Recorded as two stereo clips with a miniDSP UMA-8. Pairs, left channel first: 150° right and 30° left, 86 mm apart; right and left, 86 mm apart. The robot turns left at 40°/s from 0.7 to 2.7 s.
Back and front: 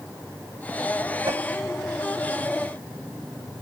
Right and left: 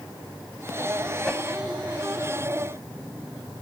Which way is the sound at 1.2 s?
Straight ahead.